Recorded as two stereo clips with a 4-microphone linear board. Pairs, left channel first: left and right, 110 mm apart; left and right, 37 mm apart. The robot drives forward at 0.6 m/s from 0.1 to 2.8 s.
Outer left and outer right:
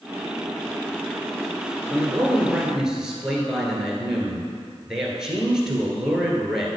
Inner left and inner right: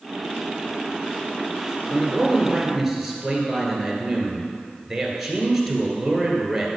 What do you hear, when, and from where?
1.9 s a man speaking: 5° right (ahead or behind), 1.5 m